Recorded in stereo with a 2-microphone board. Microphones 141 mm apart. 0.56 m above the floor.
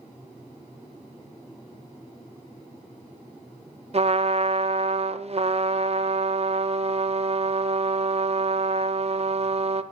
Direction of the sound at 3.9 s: 50° right (ahead or behind).